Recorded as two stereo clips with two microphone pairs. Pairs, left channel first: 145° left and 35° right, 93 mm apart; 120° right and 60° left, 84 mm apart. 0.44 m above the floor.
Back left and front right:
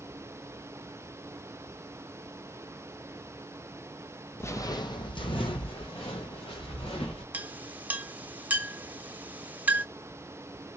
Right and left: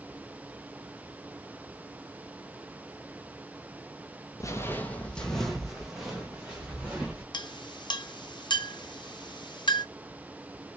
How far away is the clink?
About 0.9 m.